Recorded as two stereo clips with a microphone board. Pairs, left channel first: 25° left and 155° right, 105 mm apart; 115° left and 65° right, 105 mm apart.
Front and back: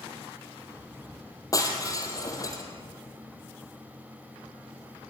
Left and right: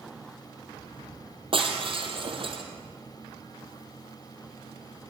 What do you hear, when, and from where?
1.5 s breaking glass: 35° right, 3 m